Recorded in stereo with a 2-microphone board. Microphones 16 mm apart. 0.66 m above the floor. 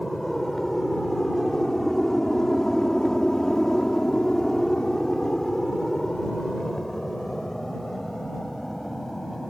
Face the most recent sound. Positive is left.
turn(degrees=20)  # may be behind; listen again after turning